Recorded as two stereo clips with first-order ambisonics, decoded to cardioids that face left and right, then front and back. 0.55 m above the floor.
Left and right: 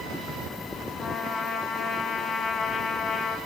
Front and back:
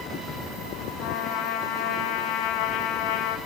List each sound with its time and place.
1.0 s a trumpet: 15° left, 2 m